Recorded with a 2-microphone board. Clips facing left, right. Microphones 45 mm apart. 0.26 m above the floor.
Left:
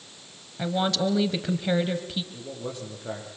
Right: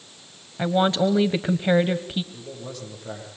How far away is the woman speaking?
About 1.3 m.